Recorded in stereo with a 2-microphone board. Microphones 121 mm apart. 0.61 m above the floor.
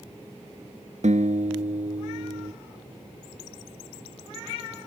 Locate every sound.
1.0 s a guitar: 75° right (ahead or behind)